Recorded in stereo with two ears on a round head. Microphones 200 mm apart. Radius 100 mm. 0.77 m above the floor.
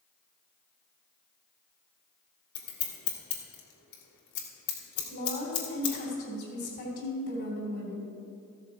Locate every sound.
2.5 s scissors: 70° left (ahead or behind), 2.5 m
5.1 s a woman speaking: 50° left (ahead or behind), 3 m